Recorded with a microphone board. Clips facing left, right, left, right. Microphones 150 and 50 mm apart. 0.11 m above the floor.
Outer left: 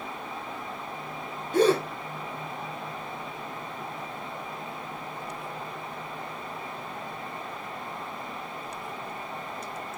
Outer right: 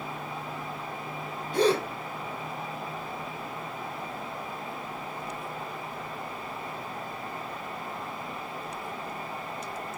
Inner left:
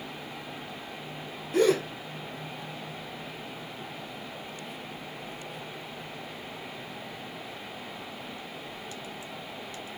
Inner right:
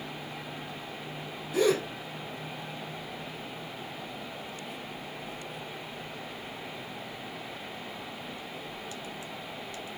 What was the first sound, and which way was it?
A gasp, 50° left (ahead or behind).